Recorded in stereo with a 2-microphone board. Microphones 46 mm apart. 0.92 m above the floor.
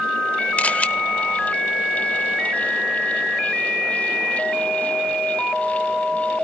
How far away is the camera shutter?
About 0.8 m.